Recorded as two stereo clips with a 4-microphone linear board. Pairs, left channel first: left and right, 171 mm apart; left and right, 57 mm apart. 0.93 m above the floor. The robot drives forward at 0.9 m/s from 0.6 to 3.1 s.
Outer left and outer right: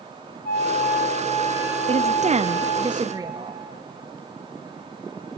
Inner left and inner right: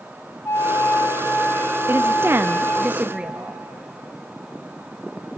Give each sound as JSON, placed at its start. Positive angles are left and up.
{"t": 0.5, "sound": "a flute", "side_deg": 60, "distance_m": 1.7}
{"t": 1.9, "sound": "a woman speaking", "side_deg": -35, "distance_m": 0.6}